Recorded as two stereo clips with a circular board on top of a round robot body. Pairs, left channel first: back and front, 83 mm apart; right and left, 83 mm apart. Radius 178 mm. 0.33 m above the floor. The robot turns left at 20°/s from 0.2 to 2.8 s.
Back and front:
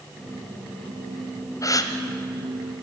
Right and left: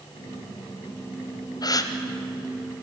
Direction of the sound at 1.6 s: 130° right.